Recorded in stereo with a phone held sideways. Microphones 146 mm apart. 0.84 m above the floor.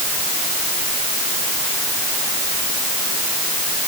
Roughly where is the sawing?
I don't hear sawing.